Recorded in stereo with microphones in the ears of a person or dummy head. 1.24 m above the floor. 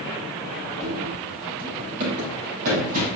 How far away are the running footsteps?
About 2 m.